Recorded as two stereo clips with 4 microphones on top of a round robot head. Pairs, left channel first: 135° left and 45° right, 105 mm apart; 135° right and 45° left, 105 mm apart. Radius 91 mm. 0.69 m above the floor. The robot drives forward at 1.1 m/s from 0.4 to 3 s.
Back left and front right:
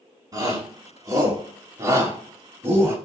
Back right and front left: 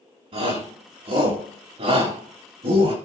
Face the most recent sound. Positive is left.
turn(degrees=25)